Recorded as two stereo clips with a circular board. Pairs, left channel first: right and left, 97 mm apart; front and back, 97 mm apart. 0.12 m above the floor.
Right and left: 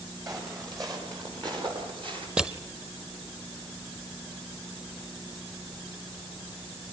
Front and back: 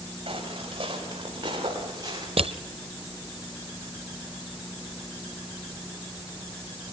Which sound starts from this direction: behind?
Crushing, at 2.4 s.